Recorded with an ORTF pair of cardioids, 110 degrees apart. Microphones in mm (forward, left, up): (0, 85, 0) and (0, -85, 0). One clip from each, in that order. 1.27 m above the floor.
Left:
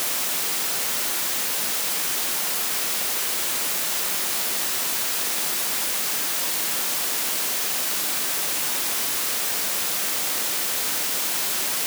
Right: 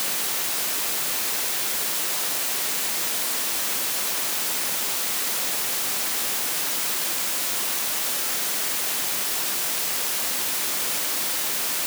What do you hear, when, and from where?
Only background noise.